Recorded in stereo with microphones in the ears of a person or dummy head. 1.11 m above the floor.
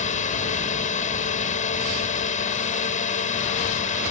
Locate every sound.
0.0 s a drone: 40° left (ahead or behind)